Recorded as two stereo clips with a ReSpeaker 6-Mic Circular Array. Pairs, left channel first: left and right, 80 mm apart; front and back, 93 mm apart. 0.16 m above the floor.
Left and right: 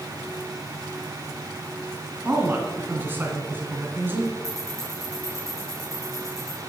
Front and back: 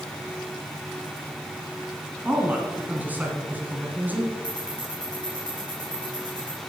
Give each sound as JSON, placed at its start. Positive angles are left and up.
{"t": 2.2, "sound": "a man speaking", "azimuth_deg": -125, "distance_m": 1.7}
{"t": 4.4, "sound": "ticking", "azimuth_deg": -35, "distance_m": 4.5}